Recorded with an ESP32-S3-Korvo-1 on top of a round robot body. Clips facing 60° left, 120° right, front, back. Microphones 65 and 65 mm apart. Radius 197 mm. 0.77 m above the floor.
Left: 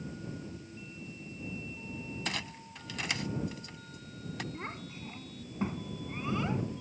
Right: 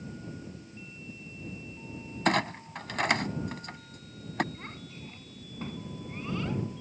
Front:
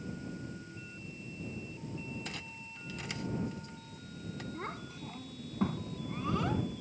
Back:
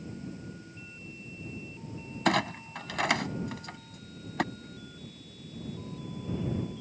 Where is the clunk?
155° right.